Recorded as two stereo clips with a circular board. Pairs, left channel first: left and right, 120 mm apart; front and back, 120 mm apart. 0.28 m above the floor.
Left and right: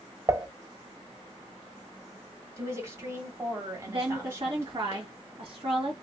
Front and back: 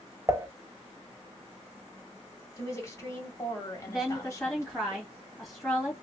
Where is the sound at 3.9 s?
90° right, 1.5 m.